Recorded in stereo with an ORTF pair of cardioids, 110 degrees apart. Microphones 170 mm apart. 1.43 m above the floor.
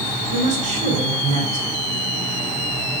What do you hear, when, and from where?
0.3 s a woman speaking: 45° right, 6 m